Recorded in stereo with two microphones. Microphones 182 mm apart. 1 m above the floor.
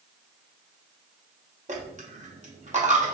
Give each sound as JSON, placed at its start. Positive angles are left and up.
{"t": 1.7, "sound": "a dropped coin", "side_deg": -40, "distance_m": 0.6}